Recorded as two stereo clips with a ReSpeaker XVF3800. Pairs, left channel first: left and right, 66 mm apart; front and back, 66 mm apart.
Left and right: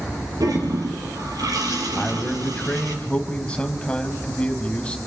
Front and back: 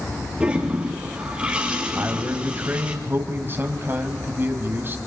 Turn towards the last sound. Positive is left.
turn(degrees=150)